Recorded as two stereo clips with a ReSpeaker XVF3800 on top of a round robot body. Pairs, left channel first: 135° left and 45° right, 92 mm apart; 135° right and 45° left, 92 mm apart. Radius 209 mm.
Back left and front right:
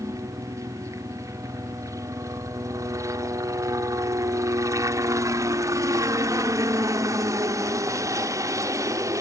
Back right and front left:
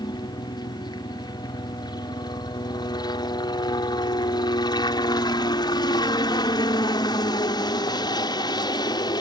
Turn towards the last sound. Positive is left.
turn(degrees=-100)